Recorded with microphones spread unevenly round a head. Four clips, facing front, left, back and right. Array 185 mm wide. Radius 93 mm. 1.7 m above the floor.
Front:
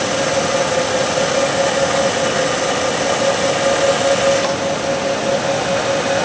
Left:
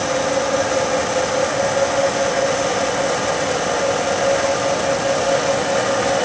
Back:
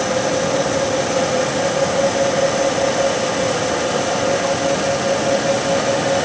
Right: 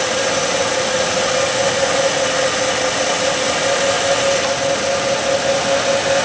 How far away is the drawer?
No drawer in this recording.